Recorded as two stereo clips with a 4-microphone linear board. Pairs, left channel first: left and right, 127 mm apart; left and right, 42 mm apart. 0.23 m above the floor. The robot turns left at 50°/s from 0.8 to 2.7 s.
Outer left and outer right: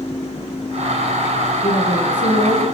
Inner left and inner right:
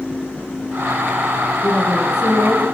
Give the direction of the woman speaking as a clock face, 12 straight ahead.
8 o'clock.